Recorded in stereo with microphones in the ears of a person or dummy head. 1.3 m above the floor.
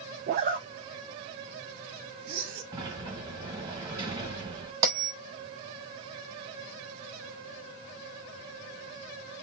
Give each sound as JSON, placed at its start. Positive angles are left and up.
{"t": 0.3, "sound": "a zipper", "side_deg": -35, "distance_m": 0.5}
{"t": 2.7, "sound": "a sliding door", "side_deg": -15, "distance_m": 1.2}
{"t": 4.8, "sound": "a bell", "side_deg": -20, "distance_m": 0.9}